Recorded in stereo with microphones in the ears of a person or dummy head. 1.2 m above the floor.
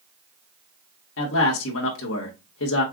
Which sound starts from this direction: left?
A man speaking, at 1.2 s.